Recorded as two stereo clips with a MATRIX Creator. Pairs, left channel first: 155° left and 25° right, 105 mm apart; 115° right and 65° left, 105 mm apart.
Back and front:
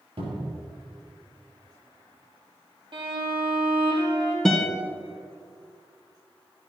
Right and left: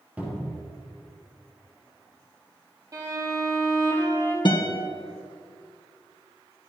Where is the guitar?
120° right, 1.5 m.